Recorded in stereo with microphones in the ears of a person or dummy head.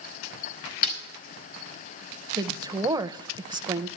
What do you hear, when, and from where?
0.8 s a snare drum: 45° left (ahead or behind), 5 m
2.4 s a woman speaking: 20° right (ahead or behind), 0.6 m